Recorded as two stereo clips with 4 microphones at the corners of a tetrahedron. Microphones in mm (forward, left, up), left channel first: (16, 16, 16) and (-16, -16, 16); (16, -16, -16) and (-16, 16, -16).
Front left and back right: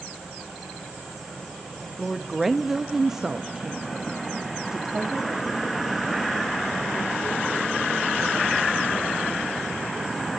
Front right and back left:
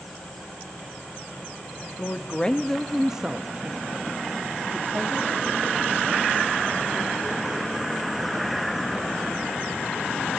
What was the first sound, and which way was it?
A woman speaking, 45° right.